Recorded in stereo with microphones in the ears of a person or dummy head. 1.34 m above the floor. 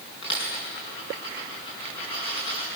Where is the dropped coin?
35° left (ahead or behind), 6 m.